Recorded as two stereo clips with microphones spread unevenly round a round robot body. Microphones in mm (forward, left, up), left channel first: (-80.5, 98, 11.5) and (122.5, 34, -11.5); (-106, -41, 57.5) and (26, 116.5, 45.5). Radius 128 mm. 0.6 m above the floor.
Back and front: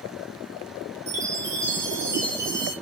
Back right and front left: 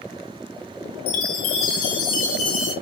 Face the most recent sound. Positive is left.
turn(degrees=-95)